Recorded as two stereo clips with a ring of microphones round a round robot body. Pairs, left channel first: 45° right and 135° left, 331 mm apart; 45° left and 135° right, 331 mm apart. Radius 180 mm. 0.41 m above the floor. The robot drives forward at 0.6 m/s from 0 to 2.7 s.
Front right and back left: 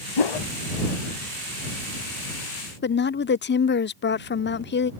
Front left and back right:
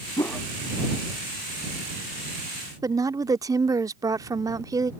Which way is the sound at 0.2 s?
35° right.